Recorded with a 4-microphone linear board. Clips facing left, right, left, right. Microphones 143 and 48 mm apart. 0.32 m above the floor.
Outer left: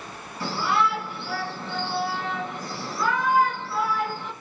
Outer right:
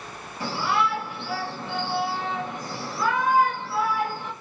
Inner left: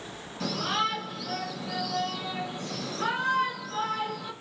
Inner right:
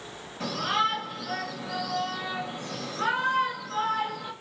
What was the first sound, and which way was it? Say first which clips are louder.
A shout: outer left 1 dB, inner right 2 dB; 20° right (ahead or behind).